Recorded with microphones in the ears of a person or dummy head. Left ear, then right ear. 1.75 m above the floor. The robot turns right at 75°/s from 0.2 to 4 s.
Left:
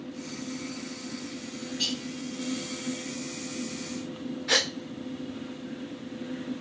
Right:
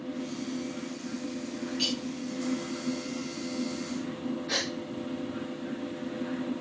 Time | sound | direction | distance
1.8 | cutlery clinking | 35° right (ahead or behind) | 2.5 m
4.5 | a gasp | 50° left (ahead or behind) | 0.6 m